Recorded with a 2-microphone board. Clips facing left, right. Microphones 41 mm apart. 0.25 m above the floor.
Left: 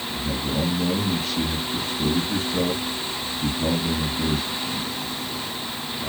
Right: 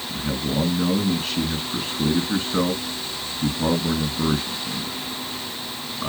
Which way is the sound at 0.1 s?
55° right (ahead or behind).